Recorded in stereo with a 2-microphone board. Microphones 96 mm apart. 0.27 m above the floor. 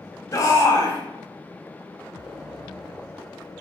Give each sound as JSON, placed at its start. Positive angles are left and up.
{"t": 0.3, "sound": "a shout", "side_deg": 35, "distance_m": 1.2}